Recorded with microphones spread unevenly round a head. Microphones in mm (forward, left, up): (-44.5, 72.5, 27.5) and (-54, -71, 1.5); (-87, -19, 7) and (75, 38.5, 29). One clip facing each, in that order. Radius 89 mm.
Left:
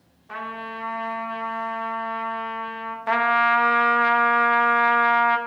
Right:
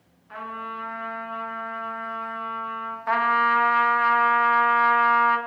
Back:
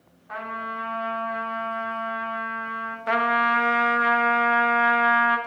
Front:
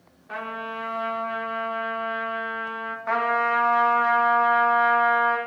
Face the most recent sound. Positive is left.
turn(degrees=145)